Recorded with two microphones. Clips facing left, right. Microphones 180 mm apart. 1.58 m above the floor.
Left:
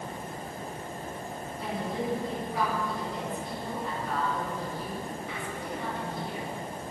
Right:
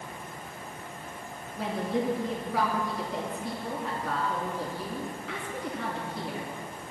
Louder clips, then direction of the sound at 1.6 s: Right 4 dB; 85° right.